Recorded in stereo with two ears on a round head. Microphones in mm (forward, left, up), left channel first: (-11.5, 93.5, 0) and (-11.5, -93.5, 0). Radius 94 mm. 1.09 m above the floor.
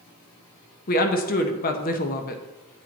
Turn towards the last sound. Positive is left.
turn(degrees=40)  # may be behind; listen again after turning